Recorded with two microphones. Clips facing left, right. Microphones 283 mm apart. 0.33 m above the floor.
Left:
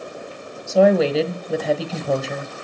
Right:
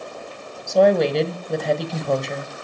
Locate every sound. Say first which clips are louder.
0.7 s a woman speaking: left 1 dB; 5° left (ahead or behind), 1.4 m